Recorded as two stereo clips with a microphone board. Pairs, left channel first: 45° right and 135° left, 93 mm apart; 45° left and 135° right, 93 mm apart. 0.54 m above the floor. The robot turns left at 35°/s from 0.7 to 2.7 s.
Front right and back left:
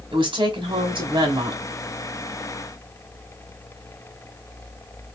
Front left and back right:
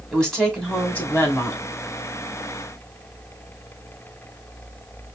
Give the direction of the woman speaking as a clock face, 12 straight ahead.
8 o'clock.